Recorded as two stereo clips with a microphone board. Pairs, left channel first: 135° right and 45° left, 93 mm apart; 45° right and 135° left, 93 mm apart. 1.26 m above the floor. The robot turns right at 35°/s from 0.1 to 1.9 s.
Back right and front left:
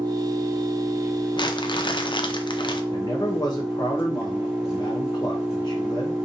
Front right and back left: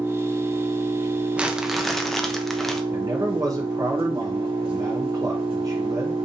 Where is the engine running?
65° left, 1.4 m; by 6.2 s 130° left, 1.4 m.